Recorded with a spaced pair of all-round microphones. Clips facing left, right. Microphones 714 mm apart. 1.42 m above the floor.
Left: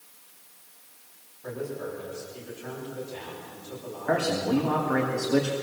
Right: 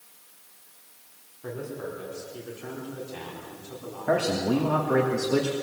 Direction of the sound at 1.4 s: 80° right.